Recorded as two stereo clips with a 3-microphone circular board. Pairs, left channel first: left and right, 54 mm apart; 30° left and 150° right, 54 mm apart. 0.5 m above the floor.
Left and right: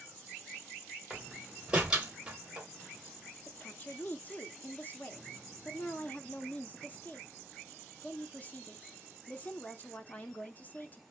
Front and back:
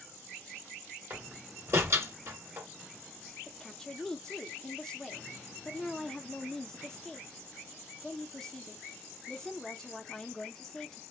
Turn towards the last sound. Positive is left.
turn(degrees=100)